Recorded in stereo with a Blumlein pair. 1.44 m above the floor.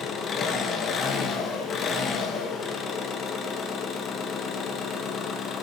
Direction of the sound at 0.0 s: 25° left.